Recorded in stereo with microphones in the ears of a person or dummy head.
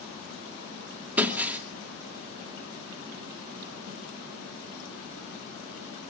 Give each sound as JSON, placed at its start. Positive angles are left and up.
{"t": 1.2, "sound": "breaking glass", "side_deg": -10, "distance_m": 2.0}